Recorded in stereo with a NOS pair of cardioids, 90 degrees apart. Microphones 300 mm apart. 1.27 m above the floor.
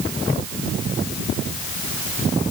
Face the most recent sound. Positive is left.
No sound to turn to.